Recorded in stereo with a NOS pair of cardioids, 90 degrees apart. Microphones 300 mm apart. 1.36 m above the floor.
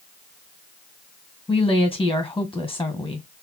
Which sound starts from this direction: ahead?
A woman speaking, at 1.5 s.